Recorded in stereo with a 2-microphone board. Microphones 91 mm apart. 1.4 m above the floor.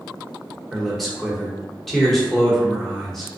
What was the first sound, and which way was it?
A man speaking, centre (ahead or behind).